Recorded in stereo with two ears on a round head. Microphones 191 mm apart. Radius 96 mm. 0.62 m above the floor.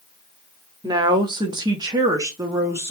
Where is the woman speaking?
20° right (ahead or behind), 0.9 m; by 2.9 s 10° right (ahead or behind), 1.1 m.